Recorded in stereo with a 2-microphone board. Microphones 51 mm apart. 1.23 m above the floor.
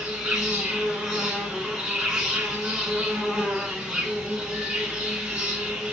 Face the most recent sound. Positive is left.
turn(degrees=-15)  # may be behind; listen again after turning